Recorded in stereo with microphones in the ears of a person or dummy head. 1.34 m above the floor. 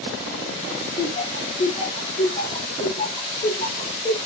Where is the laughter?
30° left (ahead or behind), 0.7 m.